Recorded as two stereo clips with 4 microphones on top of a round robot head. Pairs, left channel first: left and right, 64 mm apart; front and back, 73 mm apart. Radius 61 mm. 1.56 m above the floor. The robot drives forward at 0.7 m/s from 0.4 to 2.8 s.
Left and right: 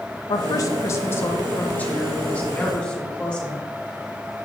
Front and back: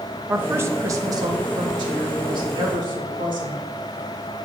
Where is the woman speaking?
110° left, 0.7 m; by 3.6 s 160° left, 2 m.